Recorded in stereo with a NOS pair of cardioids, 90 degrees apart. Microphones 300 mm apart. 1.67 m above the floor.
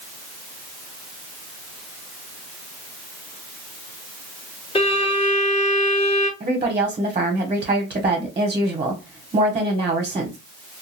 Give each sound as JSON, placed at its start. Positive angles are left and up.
{"t": 4.8, "sound": "a violin", "azimuth_deg": 20, "distance_m": 1.4}
{"t": 6.4, "sound": "a woman speaking", "azimuth_deg": -20, "distance_m": 0.9}